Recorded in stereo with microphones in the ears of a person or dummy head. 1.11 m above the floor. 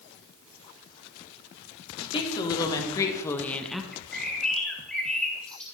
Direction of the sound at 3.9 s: 5° left (ahead or behind).